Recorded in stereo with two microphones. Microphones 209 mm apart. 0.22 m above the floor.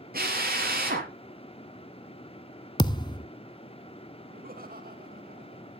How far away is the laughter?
About 2.5 m.